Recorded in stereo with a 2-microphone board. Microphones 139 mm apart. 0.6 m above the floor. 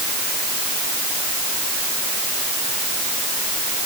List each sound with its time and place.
Only background noise.